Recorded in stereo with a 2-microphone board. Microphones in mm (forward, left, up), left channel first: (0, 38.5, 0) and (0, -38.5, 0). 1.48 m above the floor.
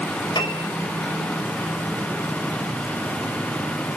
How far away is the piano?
About 3.5 m.